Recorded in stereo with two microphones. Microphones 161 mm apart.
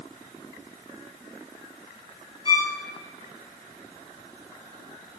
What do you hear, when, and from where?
2.5 s a violin: 30° left (ahead or behind), 2.5 m